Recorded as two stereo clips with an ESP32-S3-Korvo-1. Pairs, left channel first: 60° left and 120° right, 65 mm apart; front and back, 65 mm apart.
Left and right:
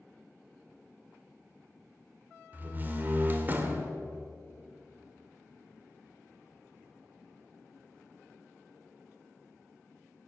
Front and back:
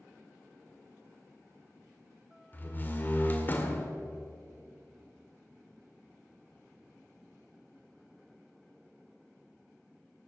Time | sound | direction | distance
2.5 | a door slam | 60° right | 1.8 m